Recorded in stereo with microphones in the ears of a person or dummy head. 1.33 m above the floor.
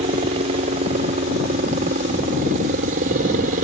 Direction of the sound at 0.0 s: 35° right (ahead or behind).